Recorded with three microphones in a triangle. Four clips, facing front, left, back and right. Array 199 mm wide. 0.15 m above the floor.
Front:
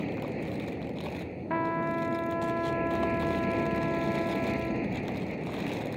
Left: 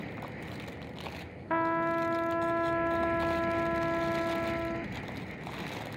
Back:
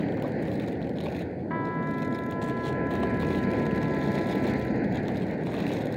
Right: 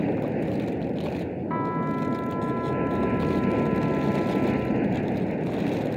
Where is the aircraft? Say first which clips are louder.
Right 16 dB, back 5 dB; 105° right.